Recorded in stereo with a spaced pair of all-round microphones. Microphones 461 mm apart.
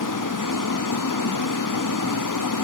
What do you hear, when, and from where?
0.0 s running water: 45° left (ahead or behind), 0.8 m